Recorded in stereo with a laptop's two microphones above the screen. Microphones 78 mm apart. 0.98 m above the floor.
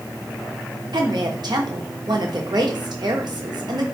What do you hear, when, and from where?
0.9 s a woman speaking: 70° right (ahead or behind), 0.9 m